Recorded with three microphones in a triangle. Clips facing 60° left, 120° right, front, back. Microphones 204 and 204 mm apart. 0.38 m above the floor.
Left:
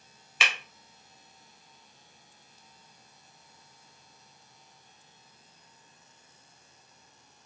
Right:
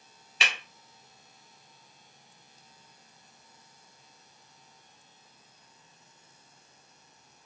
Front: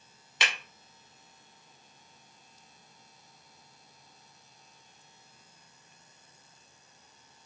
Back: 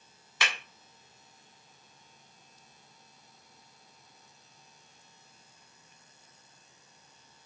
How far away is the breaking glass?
About 1.1 m.